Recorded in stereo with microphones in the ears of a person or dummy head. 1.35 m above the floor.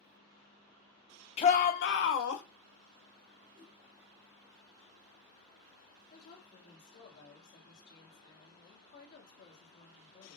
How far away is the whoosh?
About 2.5 m.